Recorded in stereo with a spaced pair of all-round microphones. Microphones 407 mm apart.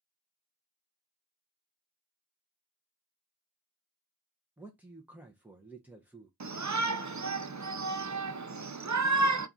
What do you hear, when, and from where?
4.6 s a man speaking: 5° right (ahead or behind), 0.6 m
6.4 s a shout: 45° right (ahead or behind), 0.5 m